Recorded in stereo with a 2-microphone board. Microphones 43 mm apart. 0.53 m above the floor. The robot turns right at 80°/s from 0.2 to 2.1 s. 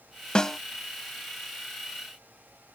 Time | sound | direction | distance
0.3 | a snare drum | 25° left (ahead or behind) | ?